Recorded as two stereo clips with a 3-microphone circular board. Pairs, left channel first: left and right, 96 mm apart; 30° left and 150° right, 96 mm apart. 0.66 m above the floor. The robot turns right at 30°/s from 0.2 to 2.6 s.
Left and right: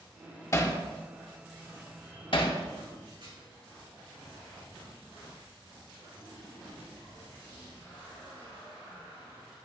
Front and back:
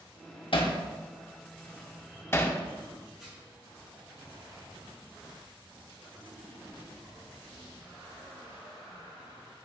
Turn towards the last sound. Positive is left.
turn(degrees=-65)